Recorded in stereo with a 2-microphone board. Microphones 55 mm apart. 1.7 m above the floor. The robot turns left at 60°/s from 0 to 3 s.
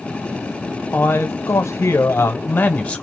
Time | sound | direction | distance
0.9 | a man speaking | 145° left | 0.9 m